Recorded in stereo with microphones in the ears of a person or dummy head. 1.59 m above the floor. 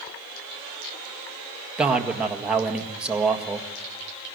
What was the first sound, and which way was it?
A man speaking, 5° right (ahead or behind).